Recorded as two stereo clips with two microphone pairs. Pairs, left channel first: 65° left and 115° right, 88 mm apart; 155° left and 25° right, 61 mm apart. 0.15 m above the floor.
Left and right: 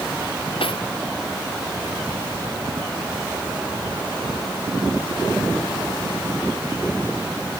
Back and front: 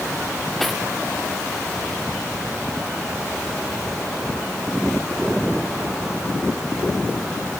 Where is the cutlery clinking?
65° left.